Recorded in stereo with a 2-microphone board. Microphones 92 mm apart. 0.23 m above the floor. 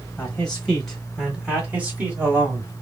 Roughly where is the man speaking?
Centre.